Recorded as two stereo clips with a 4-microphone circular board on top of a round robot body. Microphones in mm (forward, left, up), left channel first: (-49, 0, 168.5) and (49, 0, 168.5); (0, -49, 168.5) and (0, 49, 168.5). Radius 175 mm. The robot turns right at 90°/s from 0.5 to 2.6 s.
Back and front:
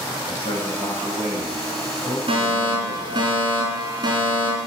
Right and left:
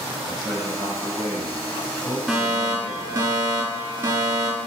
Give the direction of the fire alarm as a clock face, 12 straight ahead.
12 o'clock.